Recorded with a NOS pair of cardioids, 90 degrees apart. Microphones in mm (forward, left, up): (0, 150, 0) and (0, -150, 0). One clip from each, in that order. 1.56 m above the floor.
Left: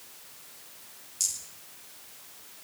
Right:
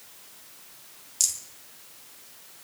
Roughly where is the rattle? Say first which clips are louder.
Right 4 dB; ahead right.